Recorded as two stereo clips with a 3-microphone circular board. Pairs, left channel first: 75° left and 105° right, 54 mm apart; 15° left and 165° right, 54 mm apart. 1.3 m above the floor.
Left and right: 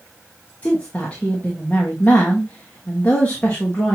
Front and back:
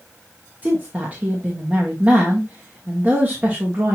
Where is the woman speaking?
135° left, 1.3 m.